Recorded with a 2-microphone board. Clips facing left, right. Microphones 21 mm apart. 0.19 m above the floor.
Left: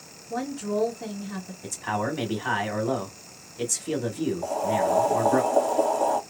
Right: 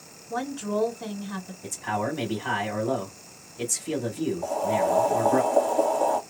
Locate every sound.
0.3 s a woman speaking: 45° right (ahead or behind), 1.5 m
1.6 s a man speaking: 20° left (ahead or behind), 1.0 m
4.4 s boiling: 5° left (ahead or behind), 1.2 m